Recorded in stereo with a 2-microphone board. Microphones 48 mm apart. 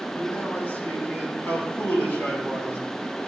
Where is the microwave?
No microwave in this recording.